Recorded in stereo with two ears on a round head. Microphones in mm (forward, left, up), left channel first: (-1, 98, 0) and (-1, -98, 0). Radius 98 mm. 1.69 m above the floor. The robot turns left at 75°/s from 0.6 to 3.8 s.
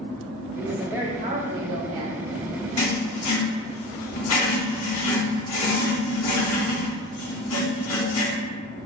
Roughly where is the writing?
Behind.